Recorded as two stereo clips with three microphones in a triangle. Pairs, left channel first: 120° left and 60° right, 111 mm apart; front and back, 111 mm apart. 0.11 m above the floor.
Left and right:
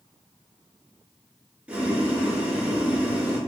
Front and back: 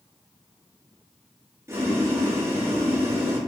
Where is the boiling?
130° right, 1.3 m.